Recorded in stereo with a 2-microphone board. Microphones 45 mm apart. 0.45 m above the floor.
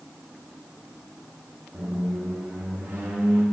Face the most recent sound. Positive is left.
turn(degrees=-50)  # may be behind; listen again after turning